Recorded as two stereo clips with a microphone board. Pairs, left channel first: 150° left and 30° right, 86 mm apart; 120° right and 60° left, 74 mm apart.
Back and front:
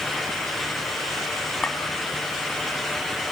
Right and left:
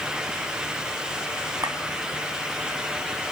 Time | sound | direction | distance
1.6 | a clink | 75° left | 1.8 m